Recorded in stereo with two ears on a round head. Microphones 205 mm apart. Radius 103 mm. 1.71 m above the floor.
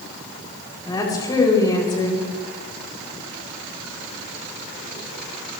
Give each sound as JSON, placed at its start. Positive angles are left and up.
{"t": 0.8, "sound": "a woman speaking", "side_deg": 20, "distance_m": 8.5}